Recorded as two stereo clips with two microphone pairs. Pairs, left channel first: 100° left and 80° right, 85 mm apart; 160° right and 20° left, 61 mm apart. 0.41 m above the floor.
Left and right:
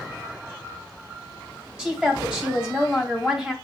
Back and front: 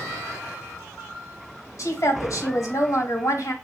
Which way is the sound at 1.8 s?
160° right.